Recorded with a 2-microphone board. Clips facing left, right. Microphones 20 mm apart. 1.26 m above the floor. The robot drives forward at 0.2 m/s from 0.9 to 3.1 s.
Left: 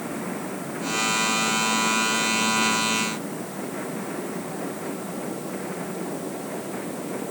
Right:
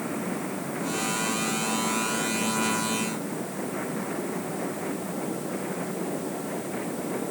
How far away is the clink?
No clink in this recording.